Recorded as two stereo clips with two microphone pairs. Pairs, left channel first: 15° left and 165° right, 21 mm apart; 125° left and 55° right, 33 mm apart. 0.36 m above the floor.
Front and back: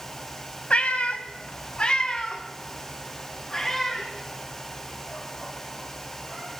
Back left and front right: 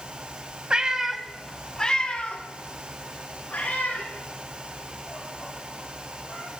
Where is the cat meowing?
5° left, 0.7 m; by 6.5 s 95° left, 3.5 m.